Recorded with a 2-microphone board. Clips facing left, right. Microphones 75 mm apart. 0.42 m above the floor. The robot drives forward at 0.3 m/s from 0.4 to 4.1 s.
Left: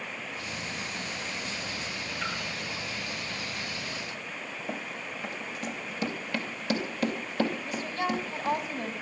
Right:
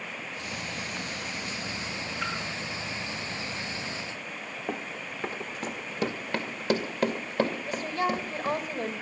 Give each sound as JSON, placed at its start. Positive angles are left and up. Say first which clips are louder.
{"t": 2.2, "sound": "a splash", "louder": "right 1 dB", "side_deg": -10, "distance_m": 8.0}
{"t": 4.7, "sound": "running footsteps", "louder": "right 3 dB", "side_deg": -35, "distance_m": 1.2}
{"t": 7.6, "sound": "a woman speaking", "louder": "right 2 dB", "side_deg": -35, "distance_m": 2.0}